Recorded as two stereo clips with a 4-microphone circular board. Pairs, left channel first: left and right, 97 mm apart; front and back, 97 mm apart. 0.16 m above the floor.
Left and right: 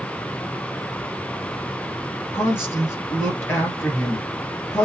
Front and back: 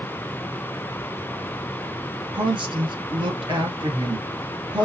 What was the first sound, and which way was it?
A woman speaking, 155° left.